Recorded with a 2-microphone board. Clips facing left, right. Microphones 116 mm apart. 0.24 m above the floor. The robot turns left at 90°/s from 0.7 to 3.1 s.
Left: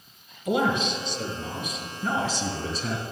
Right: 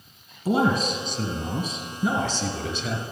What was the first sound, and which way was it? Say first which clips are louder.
A man speaking: right 2 dB; 50° right.